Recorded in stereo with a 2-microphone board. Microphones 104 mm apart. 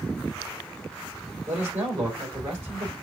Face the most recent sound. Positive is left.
turn(degrees=-30)  # may be behind; listen again after turning